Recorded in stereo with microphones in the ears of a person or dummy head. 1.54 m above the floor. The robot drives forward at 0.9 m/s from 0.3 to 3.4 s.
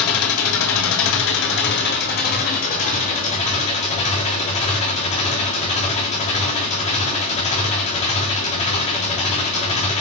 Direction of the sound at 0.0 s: 80° left.